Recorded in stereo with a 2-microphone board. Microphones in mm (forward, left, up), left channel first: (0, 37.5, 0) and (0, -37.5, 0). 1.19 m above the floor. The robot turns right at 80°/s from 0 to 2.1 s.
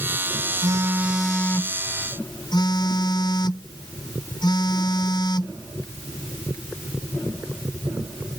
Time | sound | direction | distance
0.6 | a phone buzzing | 50° right | ?